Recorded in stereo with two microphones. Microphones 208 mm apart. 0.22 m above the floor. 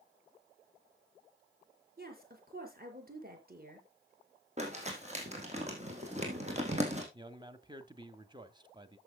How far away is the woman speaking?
About 4.5 m.